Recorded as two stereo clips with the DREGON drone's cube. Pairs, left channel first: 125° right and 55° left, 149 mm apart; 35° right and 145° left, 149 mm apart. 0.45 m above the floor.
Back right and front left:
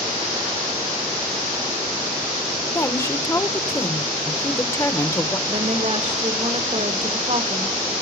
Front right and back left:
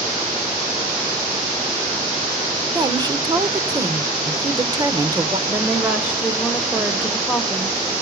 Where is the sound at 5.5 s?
65° left, 1.9 m.